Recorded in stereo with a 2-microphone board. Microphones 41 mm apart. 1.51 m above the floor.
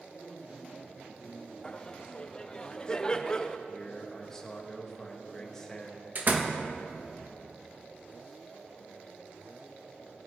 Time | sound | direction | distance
0.1 | a man speaking | 30° right (ahead or behind) | 4 m
1.6 | laughter | 20° left (ahead or behind) | 0.6 m
3.7 | a man speaking | 10° left (ahead or behind) | 2.0 m
6.2 | a door slam | 45° right (ahead or behind) | 1.1 m